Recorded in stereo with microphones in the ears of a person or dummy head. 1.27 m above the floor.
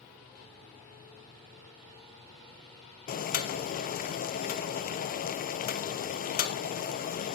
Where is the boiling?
40° left (ahead or behind), 0.6 m.